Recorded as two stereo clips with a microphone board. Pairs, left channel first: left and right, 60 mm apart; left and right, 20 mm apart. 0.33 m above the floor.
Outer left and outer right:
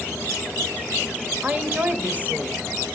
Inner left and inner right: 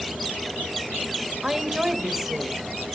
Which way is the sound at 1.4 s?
30° right (ahead or behind).